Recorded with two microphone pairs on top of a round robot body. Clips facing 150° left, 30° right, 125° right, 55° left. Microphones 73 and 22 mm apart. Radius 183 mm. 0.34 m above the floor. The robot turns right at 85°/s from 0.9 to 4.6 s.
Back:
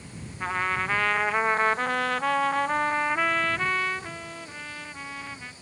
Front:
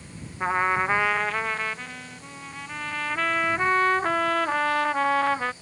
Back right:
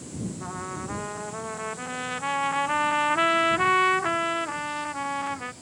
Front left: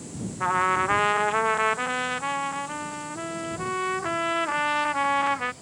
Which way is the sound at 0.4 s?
35° left.